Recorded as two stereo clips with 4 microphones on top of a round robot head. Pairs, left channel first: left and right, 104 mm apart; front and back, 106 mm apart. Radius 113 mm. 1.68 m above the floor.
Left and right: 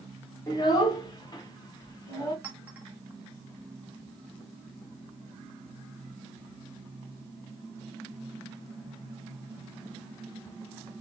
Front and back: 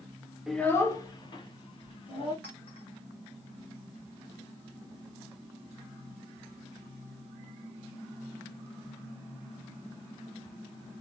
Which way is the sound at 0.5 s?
100° left.